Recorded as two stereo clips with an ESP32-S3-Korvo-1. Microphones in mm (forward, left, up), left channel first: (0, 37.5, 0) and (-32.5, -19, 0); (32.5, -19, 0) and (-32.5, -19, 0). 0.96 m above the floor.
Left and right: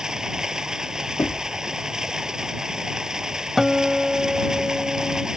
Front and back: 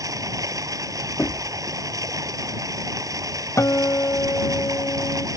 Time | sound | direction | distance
0.0 | running water | 160° left | ?
1.2 | knocking | 40° left | ?
3.6 | a guitar | 30° right | ?